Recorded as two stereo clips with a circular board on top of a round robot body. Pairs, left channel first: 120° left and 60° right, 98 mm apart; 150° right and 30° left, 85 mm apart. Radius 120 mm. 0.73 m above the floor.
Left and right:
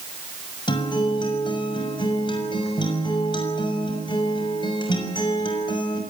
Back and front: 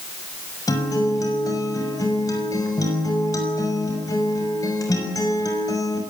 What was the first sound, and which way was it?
A guitar, 160° left.